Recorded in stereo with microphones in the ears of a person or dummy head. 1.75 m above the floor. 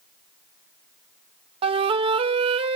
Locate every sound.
1.6 s a flute: 35° right (ahead or behind), 0.6 m